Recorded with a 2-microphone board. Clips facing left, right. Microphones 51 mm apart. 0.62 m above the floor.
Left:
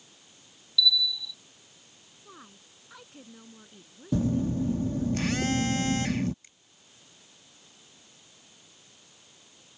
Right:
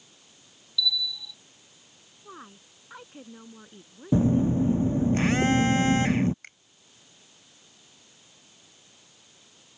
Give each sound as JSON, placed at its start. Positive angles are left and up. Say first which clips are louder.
{"t": 0.8, "sound": "a bell", "louder": "left 3 dB", "side_deg": -15}
{"t": 2.2, "sound": "a woman speaking", "louder": "right 5 dB", "side_deg": -25}
{"t": 4.1, "sound": "a phone buzzing", "louder": "right 5 dB", "side_deg": -25}
{"t": 6.4, "sound": "a finger snap", "louder": "right 13 dB", "side_deg": -60}